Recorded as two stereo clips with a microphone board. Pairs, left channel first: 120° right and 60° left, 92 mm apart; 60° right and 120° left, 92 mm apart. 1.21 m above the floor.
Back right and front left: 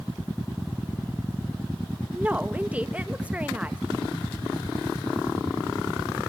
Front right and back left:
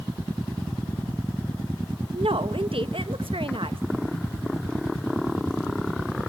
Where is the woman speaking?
135° left, 1.1 m.